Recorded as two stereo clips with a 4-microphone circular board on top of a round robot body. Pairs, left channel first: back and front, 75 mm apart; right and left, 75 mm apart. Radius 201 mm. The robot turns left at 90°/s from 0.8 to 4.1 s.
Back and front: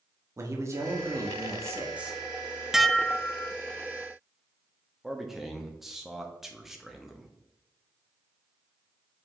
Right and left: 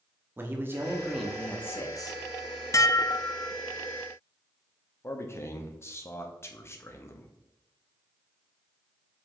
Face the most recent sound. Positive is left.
turn(degrees=-85)